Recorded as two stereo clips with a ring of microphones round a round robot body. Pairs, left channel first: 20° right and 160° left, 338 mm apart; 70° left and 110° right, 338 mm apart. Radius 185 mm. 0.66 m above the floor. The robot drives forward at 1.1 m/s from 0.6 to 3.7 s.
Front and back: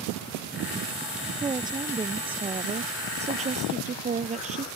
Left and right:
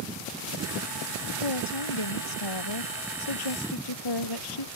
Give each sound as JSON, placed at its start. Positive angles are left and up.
{"t": 1.4, "sound": "a woman speaking", "azimuth_deg": 80}